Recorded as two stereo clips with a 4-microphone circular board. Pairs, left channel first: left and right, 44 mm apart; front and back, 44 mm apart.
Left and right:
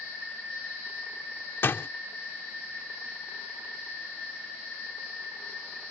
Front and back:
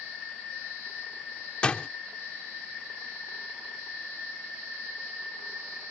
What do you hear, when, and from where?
1.6 s a door slam: 65° left